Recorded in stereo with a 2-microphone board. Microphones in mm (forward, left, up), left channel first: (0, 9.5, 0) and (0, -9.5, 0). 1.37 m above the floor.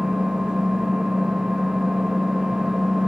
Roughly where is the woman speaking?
No woman speaking in this recording.